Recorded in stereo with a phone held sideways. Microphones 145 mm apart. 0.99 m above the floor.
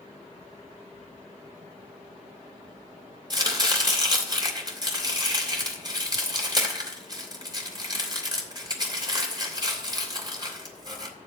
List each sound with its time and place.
3.3 s chopping: 30° right (ahead or behind), 3 m